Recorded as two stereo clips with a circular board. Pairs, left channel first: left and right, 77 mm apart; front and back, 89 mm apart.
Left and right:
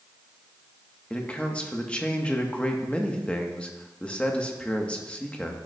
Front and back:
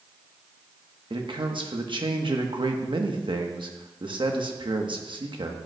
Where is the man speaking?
160° left, 1.1 m.